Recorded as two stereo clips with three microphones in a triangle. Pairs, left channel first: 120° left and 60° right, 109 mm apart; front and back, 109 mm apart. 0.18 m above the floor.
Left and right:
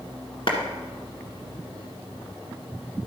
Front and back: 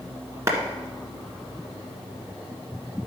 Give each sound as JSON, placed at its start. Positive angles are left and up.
{"t": 0.5, "sound": "a clap", "azimuth_deg": 125, "distance_m": 1.6}